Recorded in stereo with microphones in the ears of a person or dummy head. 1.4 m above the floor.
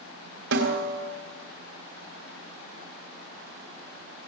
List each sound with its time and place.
0.5 s a snare drum: 60° right (ahead or behind), 1.9 m